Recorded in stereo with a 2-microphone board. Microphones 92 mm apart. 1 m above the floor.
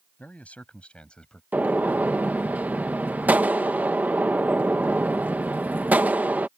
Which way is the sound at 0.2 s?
15° left (ahead or behind).